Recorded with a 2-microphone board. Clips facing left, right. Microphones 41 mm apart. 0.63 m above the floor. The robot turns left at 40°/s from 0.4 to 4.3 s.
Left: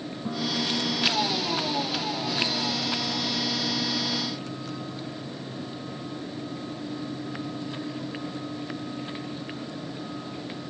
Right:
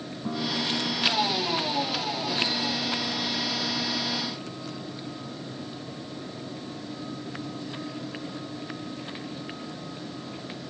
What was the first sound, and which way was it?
A guitar, 175° right.